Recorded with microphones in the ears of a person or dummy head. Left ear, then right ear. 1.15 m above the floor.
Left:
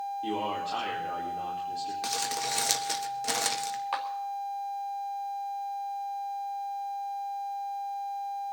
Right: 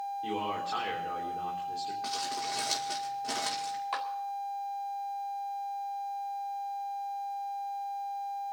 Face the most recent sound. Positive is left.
turn(degrees=15)  # may be behind; listen again after turning